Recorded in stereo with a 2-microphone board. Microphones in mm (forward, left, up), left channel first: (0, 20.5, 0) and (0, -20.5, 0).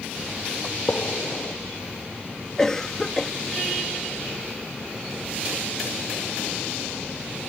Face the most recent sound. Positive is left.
turn(degrees=15)  # may be behind; listen again after turning